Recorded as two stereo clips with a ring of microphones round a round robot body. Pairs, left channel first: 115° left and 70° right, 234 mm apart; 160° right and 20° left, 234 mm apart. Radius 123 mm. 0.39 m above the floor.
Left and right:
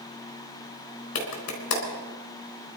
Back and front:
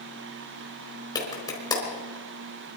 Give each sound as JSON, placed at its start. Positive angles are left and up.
{"t": 1.1, "sound": "a clap", "azimuth_deg": 125, "distance_m": 4.0}